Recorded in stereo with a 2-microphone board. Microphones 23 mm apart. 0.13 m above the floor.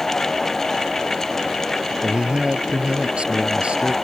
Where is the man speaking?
40° right (ahead or behind); by 3.9 s 50° right (ahead or behind).